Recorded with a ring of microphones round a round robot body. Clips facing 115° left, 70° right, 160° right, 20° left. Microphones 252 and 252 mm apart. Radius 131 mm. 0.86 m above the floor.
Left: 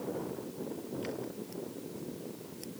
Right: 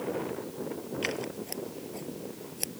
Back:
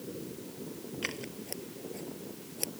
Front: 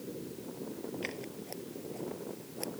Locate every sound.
1.0 s scissors: 85° right